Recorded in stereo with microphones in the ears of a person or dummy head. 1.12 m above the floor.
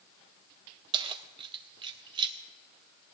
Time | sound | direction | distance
0.9 | keys jangling | 30° right (ahead or behind) | 0.7 m